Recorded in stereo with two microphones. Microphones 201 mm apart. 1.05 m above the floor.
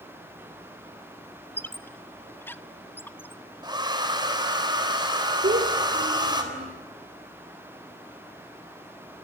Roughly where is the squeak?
Centre.